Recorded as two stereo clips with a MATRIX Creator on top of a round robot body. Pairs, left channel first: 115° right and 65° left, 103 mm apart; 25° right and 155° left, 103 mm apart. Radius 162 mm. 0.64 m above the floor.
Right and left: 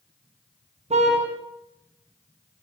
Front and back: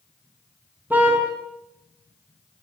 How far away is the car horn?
About 4 m.